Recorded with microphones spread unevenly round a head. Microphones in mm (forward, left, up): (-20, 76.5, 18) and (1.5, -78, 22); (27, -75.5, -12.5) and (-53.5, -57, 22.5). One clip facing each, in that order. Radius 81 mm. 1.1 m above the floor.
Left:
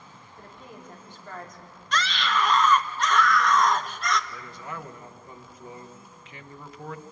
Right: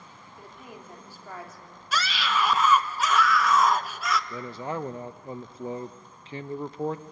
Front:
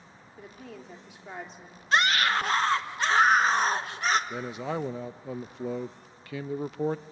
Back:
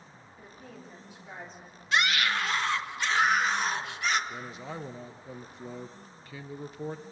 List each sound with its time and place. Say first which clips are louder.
0.4 s a woman speaking: even, front 4 dB; straight ahead, 3 m
1.9 s a scream: left 1 dB, front 3 dB; 5° left, 1.2 m
4.3 s a man speaking: right 6 dB, front 7 dB; 20° right, 0.5 m